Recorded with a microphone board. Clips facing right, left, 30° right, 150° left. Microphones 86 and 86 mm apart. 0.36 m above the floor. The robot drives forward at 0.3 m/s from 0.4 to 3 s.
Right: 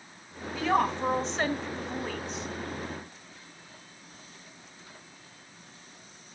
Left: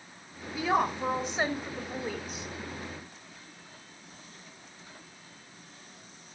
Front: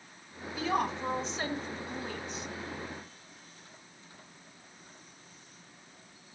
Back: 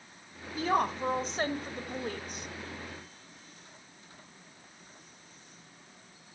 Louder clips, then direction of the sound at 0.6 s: Right 1 dB, back 2 dB; 165° left.